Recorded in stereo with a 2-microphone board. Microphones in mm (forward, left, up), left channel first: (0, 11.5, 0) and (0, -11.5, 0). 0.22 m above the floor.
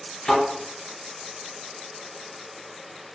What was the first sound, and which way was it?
A thud, 45° left (ahead or behind).